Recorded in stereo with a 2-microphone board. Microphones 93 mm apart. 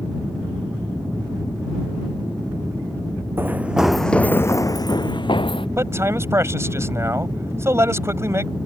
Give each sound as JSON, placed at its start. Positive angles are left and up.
{"t": 3.4, "sound": "running footsteps", "side_deg": -25}
{"t": 5.8, "sound": "a man speaking", "side_deg": -30}